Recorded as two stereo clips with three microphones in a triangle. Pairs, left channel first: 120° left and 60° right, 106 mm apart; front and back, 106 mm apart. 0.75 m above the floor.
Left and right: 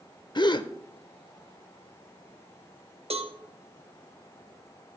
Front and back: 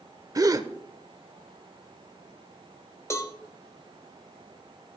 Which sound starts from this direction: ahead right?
A cowbell, at 3.1 s.